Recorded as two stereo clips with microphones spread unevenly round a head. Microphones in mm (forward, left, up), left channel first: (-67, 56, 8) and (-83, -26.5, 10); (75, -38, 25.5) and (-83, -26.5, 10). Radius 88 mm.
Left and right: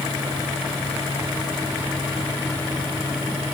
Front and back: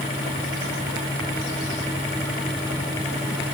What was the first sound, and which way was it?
Only background noise.